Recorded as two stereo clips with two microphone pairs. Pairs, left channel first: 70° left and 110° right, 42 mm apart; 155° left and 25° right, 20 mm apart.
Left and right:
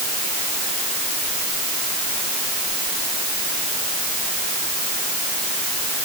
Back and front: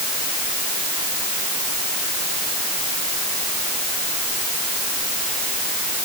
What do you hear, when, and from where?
Only background noise.